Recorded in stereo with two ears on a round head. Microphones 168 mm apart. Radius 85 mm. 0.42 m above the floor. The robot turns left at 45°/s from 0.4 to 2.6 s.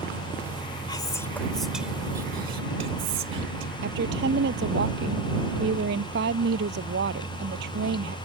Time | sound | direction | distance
0.9 | whispering | 25° left (ahead or behind) | ?
3.8 | a woman speaking | 60° right (ahead or behind) | ?